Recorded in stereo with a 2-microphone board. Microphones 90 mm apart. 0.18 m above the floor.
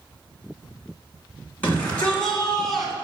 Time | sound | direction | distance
1.6 | a shout | 20° left (ahead or behind) | 2 m